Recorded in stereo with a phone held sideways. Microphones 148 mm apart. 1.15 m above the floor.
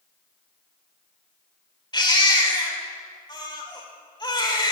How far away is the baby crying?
About 2.5 m.